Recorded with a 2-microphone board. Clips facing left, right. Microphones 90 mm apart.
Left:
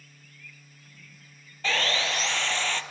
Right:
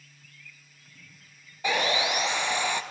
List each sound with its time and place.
1.6 s sawing: 15° right (ahead or behind), 1.0 m